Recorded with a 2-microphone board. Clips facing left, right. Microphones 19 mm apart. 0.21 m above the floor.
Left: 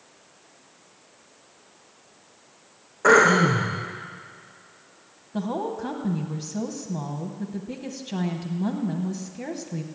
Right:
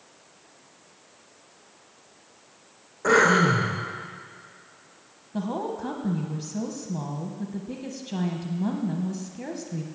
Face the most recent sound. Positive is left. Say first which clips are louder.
# left 1 dB
turn(degrees=10)  # may be behind; listen again after turning